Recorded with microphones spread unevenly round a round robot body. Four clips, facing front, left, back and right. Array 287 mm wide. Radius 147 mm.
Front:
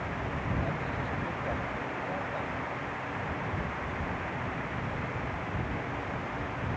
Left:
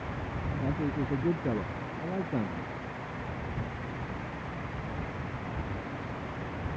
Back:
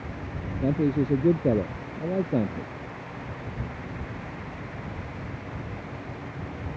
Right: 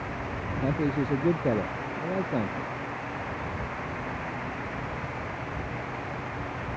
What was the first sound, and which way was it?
A man speaking, 170° right.